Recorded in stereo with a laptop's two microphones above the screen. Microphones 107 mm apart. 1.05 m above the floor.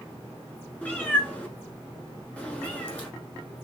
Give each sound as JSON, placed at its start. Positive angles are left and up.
{"t": 0.8, "sound": "a cat meowing", "side_deg": 15, "distance_m": 1.0}